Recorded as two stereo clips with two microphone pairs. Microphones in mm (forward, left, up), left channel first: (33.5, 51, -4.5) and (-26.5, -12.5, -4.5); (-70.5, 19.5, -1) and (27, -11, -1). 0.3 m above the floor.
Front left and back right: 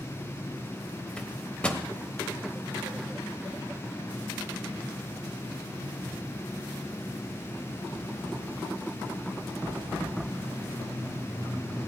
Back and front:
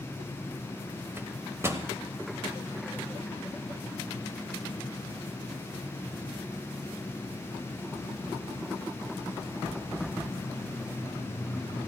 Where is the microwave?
10° right, 1.1 m.